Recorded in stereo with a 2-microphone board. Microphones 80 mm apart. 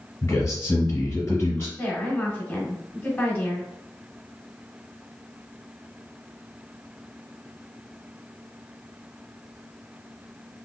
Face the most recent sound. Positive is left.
turn(degrees=25)  # may be behind; listen again after turning